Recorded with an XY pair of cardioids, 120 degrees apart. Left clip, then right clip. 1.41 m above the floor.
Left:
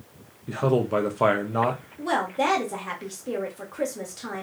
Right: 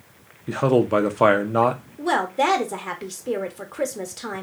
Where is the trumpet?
I don't hear a trumpet.